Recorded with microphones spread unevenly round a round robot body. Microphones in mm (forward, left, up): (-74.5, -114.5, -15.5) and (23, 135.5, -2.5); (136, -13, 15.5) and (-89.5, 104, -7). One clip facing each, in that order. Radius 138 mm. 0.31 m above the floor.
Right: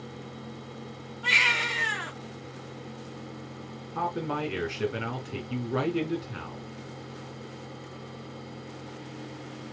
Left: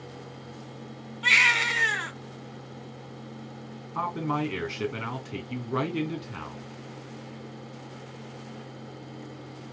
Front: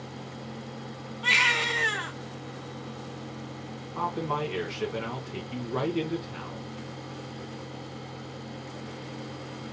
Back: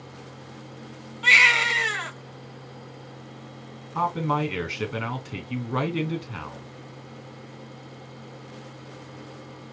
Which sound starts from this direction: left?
A baby crying, at 1.2 s.